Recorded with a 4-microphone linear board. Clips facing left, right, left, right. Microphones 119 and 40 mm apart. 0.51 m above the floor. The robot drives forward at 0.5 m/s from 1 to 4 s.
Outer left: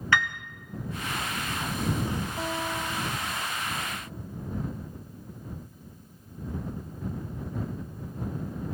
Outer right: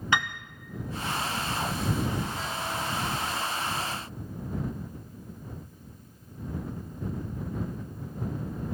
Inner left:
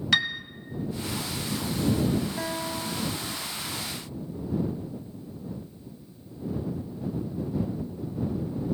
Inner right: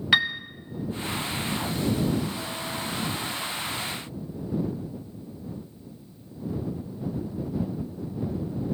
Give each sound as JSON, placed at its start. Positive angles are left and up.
{"t": 0.1, "sound": "a piano", "side_deg": -20, "distance_m": 0.5}
{"t": 2.4, "sound": "a guitar", "side_deg": 80, "distance_m": 1.0}